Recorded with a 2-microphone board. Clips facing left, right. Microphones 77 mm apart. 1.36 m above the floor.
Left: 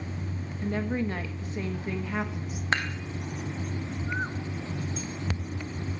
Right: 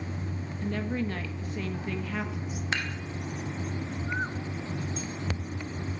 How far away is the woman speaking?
About 1.5 m.